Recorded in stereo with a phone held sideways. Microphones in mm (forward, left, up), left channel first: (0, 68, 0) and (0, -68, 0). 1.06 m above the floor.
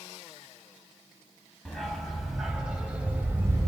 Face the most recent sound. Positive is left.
turn(degrees=-25)  # may be behind; listen again after turning